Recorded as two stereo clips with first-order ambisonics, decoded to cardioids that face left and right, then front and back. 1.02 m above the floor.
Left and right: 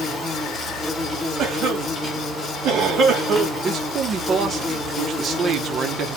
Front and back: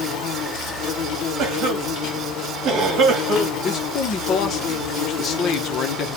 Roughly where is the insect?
Ahead.